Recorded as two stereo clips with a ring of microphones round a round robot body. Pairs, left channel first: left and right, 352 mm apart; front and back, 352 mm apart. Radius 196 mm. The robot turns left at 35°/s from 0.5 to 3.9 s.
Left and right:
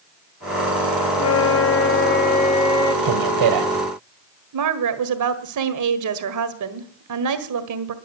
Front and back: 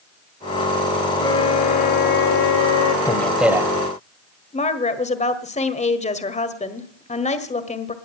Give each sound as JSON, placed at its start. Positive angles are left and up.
{"t": 1.1, "sound": "a flute", "azimuth_deg": 80, "distance_m": 1.8}
{"t": 3.0, "sound": "a man speaking", "azimuth_deg": -80, "distance_m": 1.8}
{"t": 4.5, "sound": "a woman speaking", "azimuth_deg": -70, "distance_m": 1.6}